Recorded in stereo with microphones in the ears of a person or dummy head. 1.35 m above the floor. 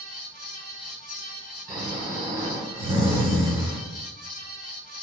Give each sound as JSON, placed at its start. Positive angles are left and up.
{"t": 0.0, "sound": "a fan", "side_deg": -5, "distance_m": 1.5}
{"t": 1.7, "sound": "snoring", "side_deg": -20, "distance_m": 1.5}